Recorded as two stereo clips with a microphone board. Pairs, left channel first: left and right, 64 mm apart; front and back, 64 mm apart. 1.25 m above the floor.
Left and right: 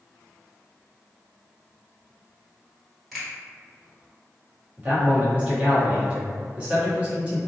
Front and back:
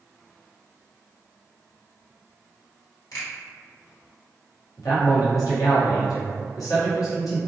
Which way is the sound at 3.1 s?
Straight ahead.